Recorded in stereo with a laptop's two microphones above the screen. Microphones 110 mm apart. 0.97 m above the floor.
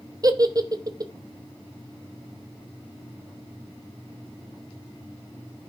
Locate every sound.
0.2 s a giggle: 35° right (ahead or behind), 0.8 m